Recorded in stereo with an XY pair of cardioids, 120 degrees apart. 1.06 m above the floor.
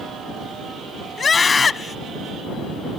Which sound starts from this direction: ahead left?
A scream, at 1.2 s.